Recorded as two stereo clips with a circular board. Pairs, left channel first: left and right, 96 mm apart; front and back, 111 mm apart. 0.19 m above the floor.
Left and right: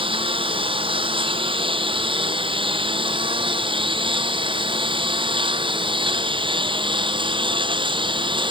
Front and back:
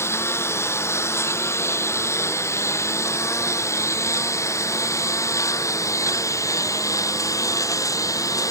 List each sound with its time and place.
0.0 s a lawn mower: 65° right; by 8.5 s 60° right